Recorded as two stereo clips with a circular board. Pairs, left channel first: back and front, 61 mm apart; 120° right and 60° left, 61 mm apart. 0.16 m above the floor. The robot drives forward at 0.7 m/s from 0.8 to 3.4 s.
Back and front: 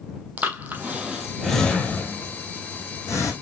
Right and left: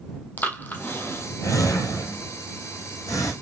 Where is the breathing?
60° right, 0.9 m; by 3.3 s 150° right, 1.6 m.